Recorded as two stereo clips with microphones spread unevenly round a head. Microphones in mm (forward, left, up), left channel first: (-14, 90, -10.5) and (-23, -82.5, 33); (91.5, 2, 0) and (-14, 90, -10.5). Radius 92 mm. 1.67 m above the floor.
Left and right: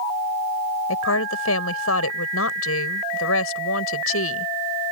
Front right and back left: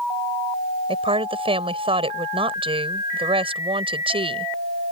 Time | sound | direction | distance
0.9 | a woman speaking | 90° left | ?